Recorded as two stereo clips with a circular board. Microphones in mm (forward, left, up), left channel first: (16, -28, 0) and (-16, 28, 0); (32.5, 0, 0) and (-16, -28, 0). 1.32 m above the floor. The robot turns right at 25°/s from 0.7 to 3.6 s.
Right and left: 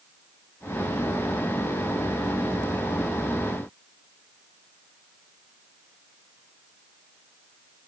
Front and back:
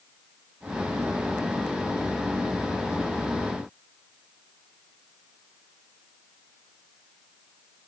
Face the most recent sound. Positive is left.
No sound to turn to.